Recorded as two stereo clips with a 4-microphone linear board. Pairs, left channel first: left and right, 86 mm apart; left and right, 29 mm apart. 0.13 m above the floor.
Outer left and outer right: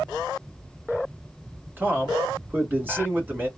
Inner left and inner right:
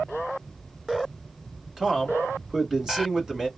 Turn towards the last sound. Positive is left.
turn(degrees=-25)  # may be behind; listen again after turning